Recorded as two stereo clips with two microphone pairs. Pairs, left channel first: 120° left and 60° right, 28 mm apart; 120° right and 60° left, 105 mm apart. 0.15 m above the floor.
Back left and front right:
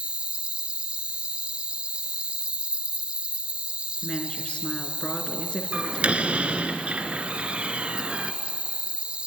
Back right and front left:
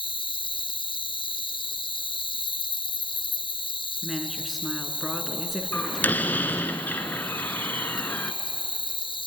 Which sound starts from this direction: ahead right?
A door slam, at 5.7 s.